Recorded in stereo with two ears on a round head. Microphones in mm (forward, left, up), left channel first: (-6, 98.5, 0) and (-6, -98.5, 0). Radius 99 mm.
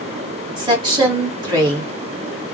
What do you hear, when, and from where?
0.6 s a woman speaking: 20° right (ahead or behind), 1.5 m